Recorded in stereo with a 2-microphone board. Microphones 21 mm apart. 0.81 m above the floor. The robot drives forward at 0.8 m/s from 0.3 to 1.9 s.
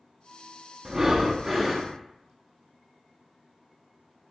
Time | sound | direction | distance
0.8 | breathing | 25° right (ahead or behind) | 0.6 m